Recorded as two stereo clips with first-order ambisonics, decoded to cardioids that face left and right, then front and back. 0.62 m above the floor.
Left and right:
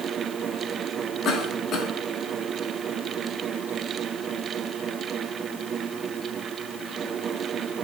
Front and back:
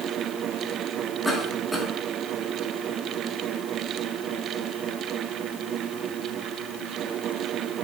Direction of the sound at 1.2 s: 85° left.